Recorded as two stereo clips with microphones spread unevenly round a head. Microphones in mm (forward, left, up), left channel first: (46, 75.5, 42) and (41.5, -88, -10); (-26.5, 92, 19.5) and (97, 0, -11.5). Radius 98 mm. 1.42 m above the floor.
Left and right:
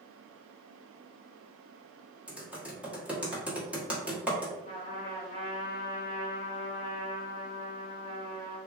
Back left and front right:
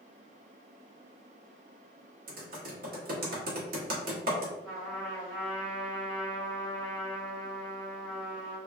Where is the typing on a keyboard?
10° right, 1.1 m.